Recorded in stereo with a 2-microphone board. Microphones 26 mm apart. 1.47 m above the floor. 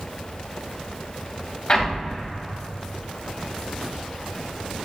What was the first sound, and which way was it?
An explosion, 30° left (ahead or behind).